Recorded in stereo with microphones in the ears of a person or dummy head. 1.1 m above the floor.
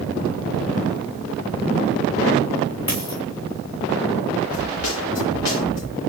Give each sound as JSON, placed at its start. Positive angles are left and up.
{"t": 2.9, "sound": "a dropped coin", "side_deg": 25, "distance_m": 4.0}
{"t": 4.5, "sound": "a snare drum", "side_deg": 70, "distance_m": 3.0}